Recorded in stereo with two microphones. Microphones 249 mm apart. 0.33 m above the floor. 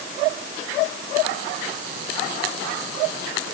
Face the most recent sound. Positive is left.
No sound to turn to.